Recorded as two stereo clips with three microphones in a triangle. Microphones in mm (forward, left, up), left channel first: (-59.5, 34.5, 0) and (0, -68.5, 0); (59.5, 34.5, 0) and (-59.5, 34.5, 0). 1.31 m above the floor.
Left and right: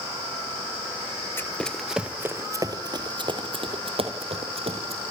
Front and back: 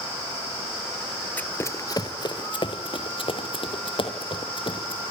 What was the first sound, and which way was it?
Running footsteps, 65° left.